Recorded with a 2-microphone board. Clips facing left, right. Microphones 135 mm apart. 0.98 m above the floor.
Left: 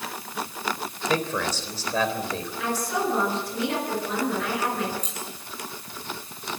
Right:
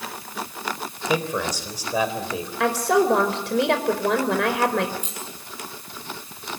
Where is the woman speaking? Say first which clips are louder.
Right 8 dB; 85° right, 4 m.